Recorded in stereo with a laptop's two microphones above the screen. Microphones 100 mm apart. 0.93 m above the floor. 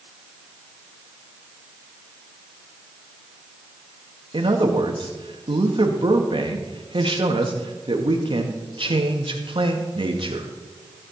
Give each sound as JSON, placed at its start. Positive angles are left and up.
{"t": 4.3, "sound": "a man speaking", "side_deg": -60, "distance_m": 1.5}